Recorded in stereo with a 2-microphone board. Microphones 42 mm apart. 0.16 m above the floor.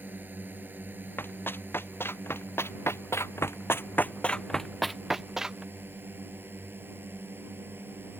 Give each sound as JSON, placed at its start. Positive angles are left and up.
{"t": 0.0, "sound": "a drone", "side_deg": -45}
{"t": 1.2, "sound": "running footsteps", "side_deg": 55}